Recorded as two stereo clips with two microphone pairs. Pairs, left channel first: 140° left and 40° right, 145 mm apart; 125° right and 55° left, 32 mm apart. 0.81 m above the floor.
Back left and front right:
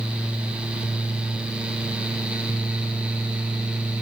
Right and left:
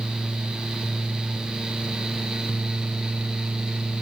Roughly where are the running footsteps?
No running footsteps in this recording.